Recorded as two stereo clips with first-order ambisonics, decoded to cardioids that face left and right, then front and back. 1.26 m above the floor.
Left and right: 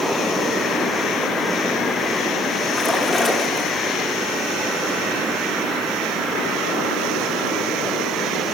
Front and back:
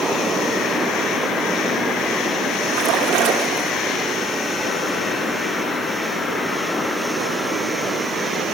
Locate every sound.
2.7 s a splash: 165° left, 1.2 m